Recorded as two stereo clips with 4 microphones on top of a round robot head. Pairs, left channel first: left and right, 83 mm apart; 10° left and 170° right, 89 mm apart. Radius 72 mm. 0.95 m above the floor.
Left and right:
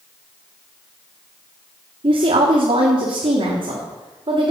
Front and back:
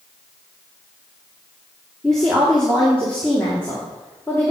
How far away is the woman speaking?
About 1.6 m.